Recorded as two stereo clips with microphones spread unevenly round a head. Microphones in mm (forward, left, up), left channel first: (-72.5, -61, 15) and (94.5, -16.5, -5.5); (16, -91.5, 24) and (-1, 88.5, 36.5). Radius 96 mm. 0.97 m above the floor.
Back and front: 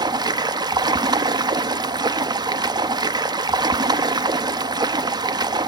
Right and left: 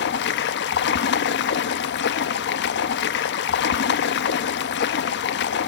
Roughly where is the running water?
Ahead right.